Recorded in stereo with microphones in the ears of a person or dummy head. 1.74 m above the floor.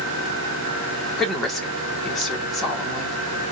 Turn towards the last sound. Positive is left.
turn(degrees=5)  # may be behind; listen again after turning